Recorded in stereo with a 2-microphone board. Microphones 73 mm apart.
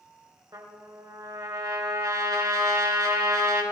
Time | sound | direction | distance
0.5 | a trumpet | 65° right (ahead or behind) | 2.5 m